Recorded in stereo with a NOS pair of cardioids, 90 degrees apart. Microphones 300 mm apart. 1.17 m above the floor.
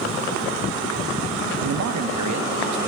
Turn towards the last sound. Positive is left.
turn(degrees=-75)